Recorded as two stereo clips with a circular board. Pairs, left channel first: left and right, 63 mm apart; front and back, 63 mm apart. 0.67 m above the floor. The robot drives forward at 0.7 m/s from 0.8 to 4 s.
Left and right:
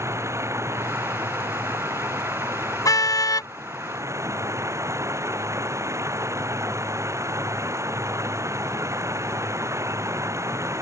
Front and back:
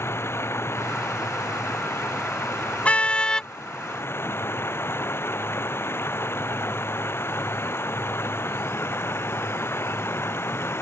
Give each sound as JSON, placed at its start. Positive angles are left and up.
{"t": 0.0, "sound": "running water", "azimuth_deg": -50}
{"t": 2.9, "sound": "a car horn", "azimuth_deg": 70}